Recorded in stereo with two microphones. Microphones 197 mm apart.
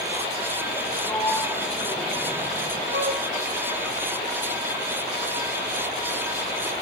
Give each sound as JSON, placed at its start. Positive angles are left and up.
{"t": 1.1, "sound": "a sliding door", "side_deg": 10, "distance_m": 3.5}
{"t": 2.9, "sound": "a flute", "side_deg": -75, "distance_m": 5.5}